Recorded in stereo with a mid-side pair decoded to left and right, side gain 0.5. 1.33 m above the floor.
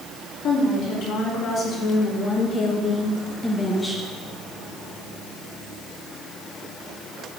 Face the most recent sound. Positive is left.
turn(degrees=5)